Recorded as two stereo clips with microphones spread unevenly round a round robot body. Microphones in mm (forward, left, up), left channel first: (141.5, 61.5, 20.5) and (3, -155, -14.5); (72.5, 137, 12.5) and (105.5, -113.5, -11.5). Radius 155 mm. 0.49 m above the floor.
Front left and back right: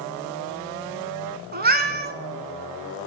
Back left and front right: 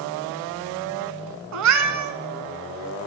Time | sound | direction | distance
1.5 | a cat meowing | 65° right | 1.1 m